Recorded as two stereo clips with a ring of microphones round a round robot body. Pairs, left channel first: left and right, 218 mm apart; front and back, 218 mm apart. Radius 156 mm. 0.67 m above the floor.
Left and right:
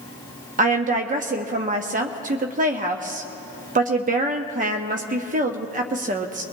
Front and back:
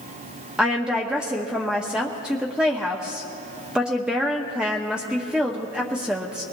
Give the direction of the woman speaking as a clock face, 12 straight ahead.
3 o'clock.